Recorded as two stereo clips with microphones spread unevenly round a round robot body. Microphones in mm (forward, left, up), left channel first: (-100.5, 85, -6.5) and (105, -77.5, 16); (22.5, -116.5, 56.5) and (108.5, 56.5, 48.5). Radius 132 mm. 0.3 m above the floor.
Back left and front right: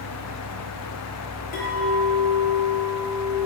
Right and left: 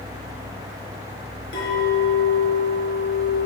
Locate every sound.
1.5 s a clink: 160° right, 4 m